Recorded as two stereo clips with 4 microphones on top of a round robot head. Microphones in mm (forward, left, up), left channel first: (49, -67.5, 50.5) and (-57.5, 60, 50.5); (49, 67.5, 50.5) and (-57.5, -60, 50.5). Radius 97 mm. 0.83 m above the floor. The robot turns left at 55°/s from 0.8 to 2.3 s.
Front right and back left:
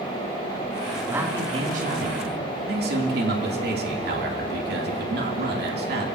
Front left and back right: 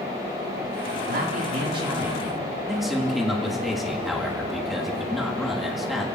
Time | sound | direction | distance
1.1 | a man speaking | 150° right | 2.5 m